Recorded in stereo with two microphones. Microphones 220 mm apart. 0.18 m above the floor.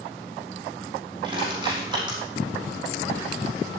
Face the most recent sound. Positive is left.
turn(degrees=-20)  # may be behind; listen again after turning